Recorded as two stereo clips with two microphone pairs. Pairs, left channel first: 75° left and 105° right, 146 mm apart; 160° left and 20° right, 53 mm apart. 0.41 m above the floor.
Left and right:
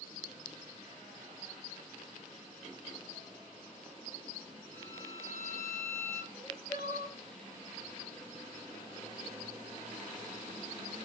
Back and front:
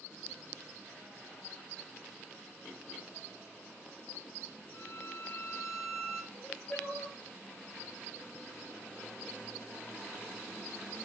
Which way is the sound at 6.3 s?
135° left.